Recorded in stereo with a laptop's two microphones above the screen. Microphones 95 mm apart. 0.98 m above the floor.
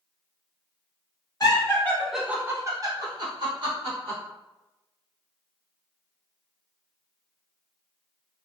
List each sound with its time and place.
1.4 s laughter: 40° left (ahead or behind), 0.6 m; by 4.2 s 60° right (ahead or behind), 1.5 m